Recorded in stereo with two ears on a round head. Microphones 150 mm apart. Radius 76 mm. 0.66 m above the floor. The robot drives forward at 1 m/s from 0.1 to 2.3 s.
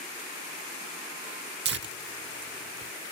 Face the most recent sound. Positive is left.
turn(degrees=-60)  # may be behind; listen again after turning